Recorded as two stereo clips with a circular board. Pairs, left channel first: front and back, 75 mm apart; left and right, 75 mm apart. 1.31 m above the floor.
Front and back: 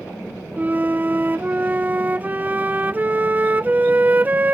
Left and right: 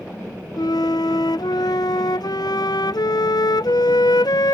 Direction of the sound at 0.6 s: 115° left.